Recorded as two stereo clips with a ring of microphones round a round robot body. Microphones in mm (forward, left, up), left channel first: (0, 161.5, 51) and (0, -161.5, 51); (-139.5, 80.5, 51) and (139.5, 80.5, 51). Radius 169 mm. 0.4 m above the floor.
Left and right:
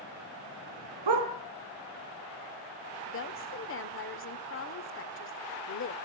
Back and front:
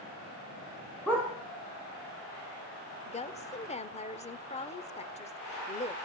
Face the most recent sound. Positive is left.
turn(degrees=120)